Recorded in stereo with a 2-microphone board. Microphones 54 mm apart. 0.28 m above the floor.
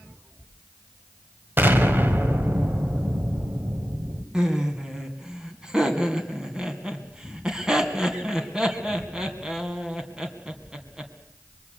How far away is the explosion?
About 1.8 m.